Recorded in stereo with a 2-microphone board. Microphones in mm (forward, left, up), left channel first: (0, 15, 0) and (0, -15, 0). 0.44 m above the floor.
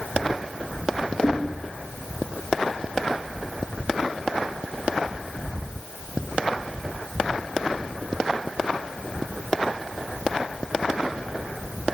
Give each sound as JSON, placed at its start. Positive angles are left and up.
{"t": 1.2, "sound": "knocking", "side_deg": 65, "distance_m": 2.0}